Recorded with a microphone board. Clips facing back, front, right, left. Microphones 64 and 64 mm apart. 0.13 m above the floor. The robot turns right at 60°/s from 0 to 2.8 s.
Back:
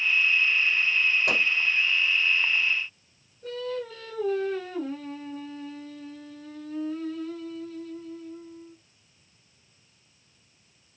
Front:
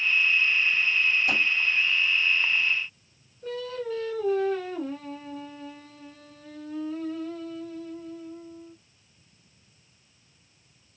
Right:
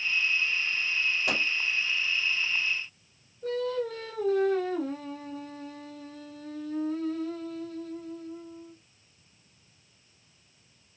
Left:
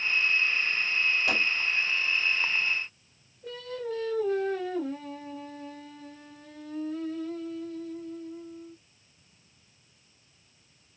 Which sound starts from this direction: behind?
A microwave, at 1.3 s.